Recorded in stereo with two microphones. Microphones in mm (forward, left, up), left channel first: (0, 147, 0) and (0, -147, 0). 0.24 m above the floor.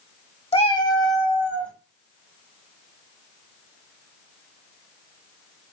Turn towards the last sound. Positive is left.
turn(degrees=5)  # may be behind; listen again after turning